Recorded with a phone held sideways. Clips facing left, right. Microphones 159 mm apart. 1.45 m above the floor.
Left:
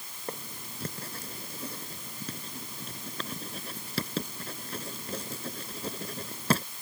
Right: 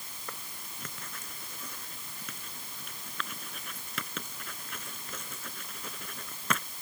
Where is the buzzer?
I don't hear a buzzer.